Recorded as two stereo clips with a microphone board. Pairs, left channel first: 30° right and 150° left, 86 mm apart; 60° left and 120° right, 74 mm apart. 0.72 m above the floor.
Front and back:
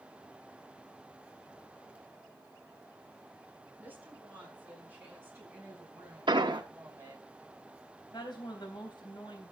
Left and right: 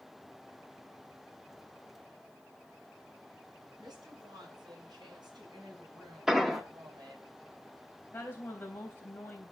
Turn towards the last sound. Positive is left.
turn(degrees=0)